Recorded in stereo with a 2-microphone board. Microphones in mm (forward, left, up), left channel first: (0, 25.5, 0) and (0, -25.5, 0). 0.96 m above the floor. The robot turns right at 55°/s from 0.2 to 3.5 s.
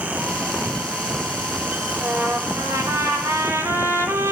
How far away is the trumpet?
About 3 m.